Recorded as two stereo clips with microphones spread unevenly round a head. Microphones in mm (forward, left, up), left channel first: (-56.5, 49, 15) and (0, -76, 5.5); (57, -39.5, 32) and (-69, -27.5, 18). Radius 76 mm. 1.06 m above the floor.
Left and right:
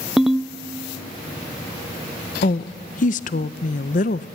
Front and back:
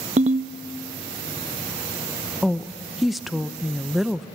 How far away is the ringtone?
About 0.5 m.